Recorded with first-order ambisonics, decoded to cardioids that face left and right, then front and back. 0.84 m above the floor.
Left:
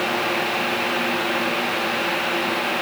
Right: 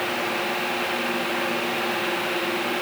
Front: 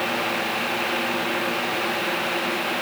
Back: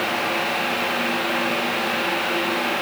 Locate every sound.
Only background noise.